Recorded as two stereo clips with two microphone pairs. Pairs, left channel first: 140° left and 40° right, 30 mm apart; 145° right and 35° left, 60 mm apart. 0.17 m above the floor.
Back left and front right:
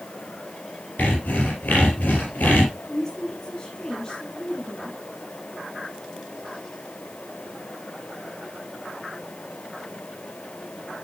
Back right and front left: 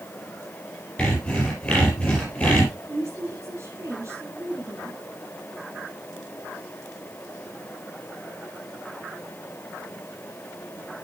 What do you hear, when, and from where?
1.0 s sawing: 145° left, 4.5 m
2.9 s a woman speaking: 65° left, 4.5 m